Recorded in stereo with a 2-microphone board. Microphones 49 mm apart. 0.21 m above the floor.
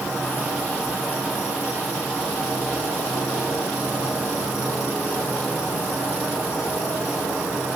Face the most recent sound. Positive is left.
turn(degrees=75)  # may be behind; listen again after turning